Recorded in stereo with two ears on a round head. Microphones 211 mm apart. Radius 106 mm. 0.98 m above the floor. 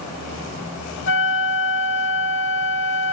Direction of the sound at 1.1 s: 55° left (ahead or behind).